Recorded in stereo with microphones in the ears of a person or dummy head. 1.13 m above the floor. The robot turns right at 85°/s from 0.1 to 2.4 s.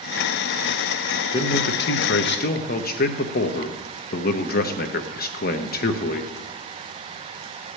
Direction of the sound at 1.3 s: 25° left.